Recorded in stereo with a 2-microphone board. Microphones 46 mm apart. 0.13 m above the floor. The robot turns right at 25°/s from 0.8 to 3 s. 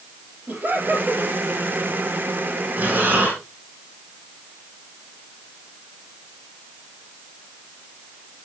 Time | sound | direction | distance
0.5 | laughter | 45° right (ahead or behind) | 4 m
2.8 | breathing | 45° right (ahead or behind) | 5.5 m